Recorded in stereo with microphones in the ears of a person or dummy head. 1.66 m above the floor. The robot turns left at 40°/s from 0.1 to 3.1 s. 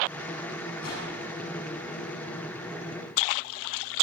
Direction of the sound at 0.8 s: 70° left (ahead or behind).